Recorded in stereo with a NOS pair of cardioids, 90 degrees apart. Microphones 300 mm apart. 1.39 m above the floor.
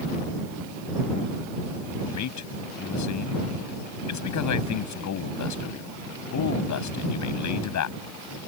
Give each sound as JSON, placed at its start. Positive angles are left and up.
{"t": 2.1, "sound": "a man speaking", "azimuth_deg": 70}